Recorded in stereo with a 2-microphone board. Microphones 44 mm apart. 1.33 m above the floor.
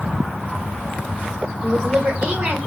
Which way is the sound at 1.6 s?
65° right (ahead or behind).